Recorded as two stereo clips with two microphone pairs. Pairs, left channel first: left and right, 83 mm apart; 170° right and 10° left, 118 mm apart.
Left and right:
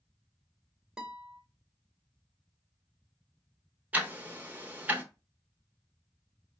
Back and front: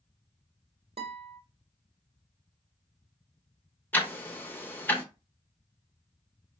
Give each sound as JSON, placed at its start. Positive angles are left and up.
{"t": 1.0, "sound": "a guitar", "azimuth_deg": -10, "distance_m": 0.9}
{"t": 3.9, "sound": "ticking", "azimuth_deg": -120, "distance_m": 0.7}